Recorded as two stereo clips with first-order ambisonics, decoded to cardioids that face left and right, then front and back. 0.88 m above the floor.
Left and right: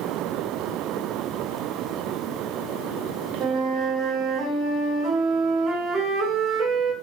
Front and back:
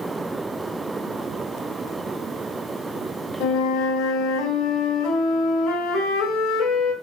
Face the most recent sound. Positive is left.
turn(degrees=-35)